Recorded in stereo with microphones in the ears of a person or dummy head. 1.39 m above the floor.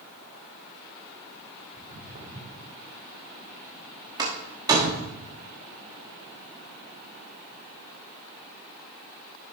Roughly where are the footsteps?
Right.